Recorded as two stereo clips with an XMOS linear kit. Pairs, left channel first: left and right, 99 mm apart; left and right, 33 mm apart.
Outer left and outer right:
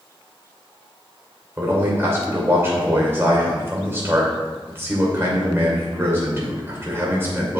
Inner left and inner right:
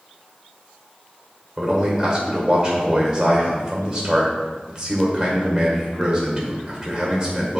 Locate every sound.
1.6 s a man speaking: 25° right (ahead or behind), 2.5 m